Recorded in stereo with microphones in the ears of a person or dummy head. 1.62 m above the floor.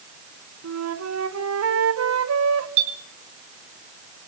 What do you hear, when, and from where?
0.6 s a flute: 75° right (ahead or behind), 1.8 m
2.8 s a clink: 80° right, 4.5 m